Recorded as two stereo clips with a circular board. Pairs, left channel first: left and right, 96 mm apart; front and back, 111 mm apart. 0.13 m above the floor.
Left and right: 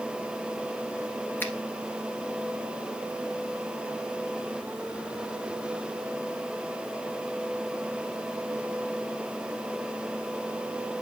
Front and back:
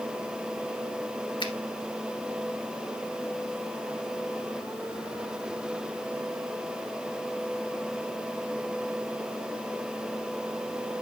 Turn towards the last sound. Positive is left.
turn(degrees=25)